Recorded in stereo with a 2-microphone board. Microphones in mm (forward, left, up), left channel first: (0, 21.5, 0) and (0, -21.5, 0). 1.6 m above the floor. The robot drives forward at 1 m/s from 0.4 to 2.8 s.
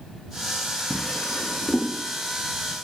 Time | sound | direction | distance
0.9 | a drawer | 15° left (ahead or behind) | 1.0 m